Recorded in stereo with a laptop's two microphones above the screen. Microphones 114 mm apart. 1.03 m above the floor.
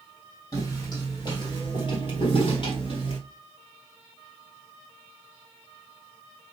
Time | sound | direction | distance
0.5 | footsteps | 30° left (ahead or behind) | 2 m